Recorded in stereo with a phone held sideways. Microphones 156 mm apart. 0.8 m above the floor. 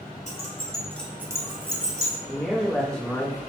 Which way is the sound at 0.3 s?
50° left (ahead or behind).